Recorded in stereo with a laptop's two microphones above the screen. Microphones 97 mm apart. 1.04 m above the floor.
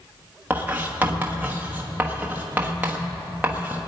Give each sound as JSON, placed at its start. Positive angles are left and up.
{"t": 0.5, "sound": "writing", "side_deg": -20, "distance_m": 1.1}